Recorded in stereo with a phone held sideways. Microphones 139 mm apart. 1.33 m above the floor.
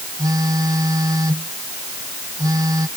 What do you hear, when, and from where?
0.2 s a phone buzzing: 25° right (ahead or behind)